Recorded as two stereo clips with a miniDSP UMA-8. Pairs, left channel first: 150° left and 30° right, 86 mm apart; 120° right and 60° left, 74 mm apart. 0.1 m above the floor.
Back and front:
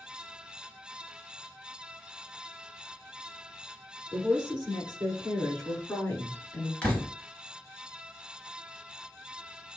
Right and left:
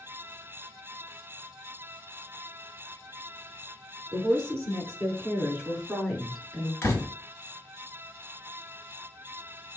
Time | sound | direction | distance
4.1 | a woman speaking | 35° left | 1.9 m
6.8 | a door slam | 145° right | 1.3 m